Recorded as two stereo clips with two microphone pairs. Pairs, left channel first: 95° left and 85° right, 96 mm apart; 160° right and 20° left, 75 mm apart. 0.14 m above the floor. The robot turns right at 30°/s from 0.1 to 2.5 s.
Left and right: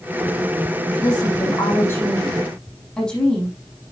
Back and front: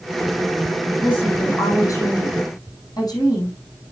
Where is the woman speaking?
130° left, 7.5 m; by 3.5 s straight behind, 7.5 m.